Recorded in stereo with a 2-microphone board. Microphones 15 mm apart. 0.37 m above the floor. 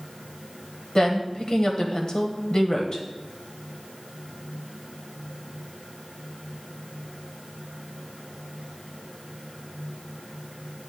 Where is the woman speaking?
50° left (ahead or behind), 1.4 m.